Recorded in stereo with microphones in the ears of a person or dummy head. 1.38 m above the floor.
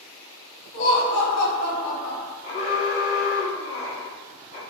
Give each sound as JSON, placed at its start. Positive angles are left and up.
{"t": 0.7, "sound": "laughter", "side_deg": 65, "distance_m": 1.4}
{"t": 2.4, "sound": "an alarm", "side_deg": 40, "distance_m": 1.3}